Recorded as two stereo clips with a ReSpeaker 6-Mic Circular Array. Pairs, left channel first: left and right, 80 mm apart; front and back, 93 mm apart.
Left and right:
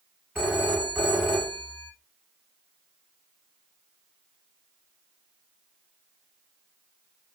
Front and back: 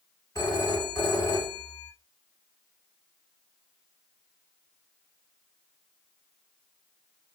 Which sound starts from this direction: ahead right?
A phone ringing, at 0.3 s.